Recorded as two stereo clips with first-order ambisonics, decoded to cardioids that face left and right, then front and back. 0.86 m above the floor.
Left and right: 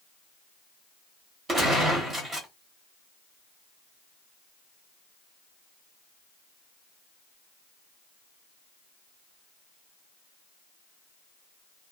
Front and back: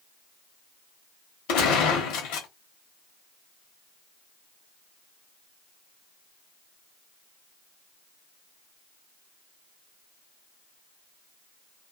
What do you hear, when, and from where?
1.5 s a gunshot: 20° right, 1.1 m